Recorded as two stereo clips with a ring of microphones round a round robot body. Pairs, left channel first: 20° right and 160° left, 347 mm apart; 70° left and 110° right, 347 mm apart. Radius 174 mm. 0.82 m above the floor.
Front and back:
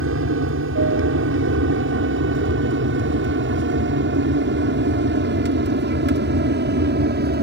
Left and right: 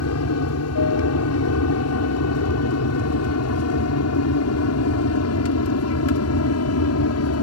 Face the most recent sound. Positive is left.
turn(degrees=100)